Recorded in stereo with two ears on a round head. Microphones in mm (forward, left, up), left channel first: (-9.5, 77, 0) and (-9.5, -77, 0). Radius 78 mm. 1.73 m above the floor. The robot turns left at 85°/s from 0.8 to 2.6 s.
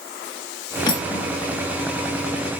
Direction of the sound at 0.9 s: 25° left (ahead or behind).